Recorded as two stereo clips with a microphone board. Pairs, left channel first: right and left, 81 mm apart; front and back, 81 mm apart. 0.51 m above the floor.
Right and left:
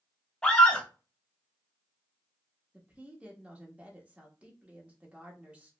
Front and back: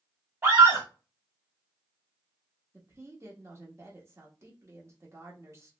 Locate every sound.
0.4 s a scream: 160° right, 0.7 m
2.7 s a woman speaking: 155° left, 0.8 m